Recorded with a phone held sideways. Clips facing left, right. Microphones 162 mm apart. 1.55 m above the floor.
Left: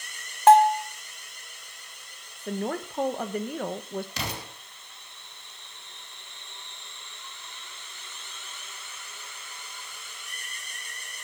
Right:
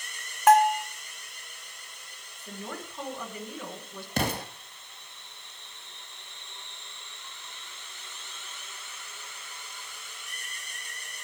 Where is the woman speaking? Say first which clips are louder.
Left 9 dB; 55° left (ahead or behind), 1.3 m.